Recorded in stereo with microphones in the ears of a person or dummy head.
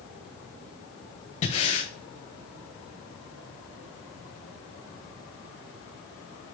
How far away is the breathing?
About 0.5 m.